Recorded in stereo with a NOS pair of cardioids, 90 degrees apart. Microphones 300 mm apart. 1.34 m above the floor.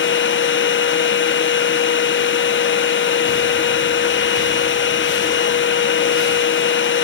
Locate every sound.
0.0 s a machine running: 40° left, 1.1 m